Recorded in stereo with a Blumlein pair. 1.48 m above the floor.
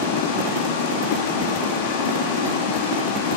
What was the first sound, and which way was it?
Running water, 50° left.